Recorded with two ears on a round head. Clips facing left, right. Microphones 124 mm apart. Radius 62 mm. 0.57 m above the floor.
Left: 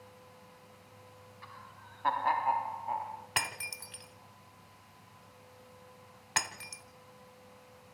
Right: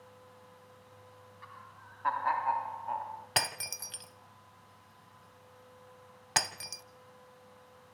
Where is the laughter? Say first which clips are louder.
Left 1 dB; 40° left (ahead or behind), 1.5 m; by 3.3 s 10° right (ahead or behind), 1.3 m.